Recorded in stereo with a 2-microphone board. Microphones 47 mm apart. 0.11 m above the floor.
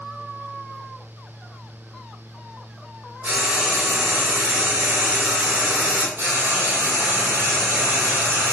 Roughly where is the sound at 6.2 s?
Right.